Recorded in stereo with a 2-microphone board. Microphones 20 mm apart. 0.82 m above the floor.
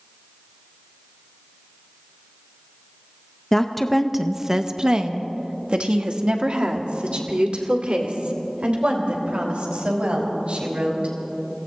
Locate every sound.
3.5 s a woman speaking: 15° left (ahead or behind), 0.7 m; by 11.1 s 75° right (ahead or behind), 4.5 m